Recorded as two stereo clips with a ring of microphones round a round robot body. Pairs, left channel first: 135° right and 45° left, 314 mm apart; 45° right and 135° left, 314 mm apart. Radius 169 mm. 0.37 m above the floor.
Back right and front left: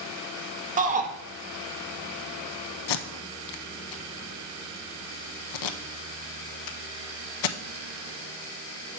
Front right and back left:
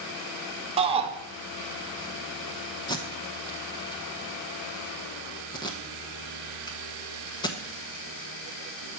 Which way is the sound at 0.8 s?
80° left.